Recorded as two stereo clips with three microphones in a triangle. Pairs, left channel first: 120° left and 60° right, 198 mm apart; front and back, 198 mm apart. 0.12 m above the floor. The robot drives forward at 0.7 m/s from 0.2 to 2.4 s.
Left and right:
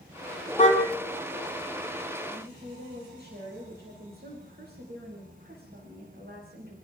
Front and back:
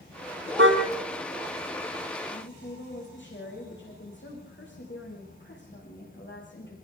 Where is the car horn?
Straight behind, 3 m.